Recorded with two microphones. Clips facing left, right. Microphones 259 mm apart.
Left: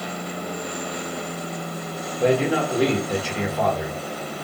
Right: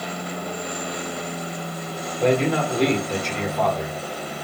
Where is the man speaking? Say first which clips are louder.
Even; 5° left (ahead or behind), 1.1 m.